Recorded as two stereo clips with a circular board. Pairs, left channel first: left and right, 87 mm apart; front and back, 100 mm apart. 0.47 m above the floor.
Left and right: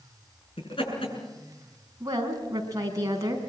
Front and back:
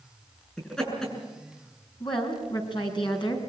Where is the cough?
I don't hear a cough.